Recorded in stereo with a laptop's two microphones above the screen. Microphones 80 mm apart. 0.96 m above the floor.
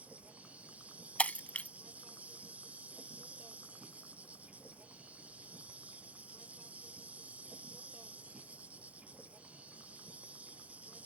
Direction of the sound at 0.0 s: 15° right (ahead or behind).